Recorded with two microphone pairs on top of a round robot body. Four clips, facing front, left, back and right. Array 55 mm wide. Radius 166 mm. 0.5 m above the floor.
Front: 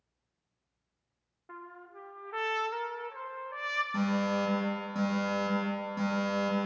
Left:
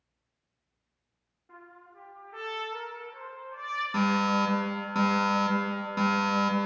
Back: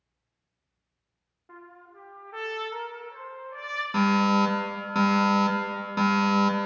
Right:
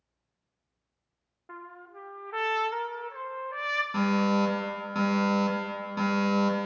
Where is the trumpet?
70° right, 0.9 m.